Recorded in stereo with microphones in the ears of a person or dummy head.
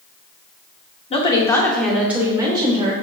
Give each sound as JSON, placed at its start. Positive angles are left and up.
{"t": 1.1, "sound": "a woman speaking", "side_deg": 35, "distance_m": 0.9}